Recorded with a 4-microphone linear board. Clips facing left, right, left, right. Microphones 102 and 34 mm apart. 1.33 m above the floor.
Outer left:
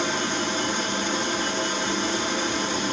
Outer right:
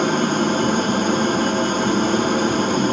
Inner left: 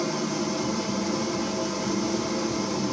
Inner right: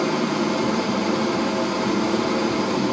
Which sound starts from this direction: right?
An engine running, at 0.0 s.